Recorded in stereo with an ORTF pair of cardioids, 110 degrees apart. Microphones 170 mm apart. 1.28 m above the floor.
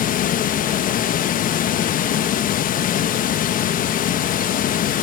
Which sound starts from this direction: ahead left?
Running water, at 0.0 s.